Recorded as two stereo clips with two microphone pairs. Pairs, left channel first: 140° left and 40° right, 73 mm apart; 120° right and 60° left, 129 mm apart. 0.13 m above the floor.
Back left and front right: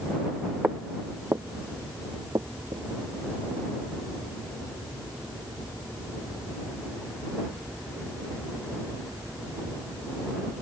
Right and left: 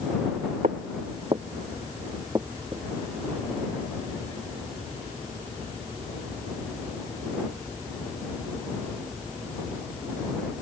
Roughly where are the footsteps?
Ahead left.